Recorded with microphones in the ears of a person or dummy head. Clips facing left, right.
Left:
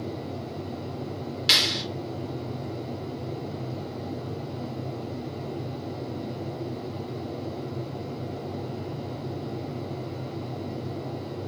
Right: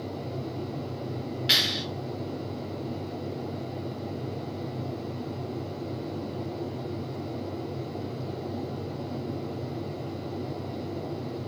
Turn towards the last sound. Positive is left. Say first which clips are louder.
# left 1 dB
turn(degrees=65)  # may be behind; listen again after turning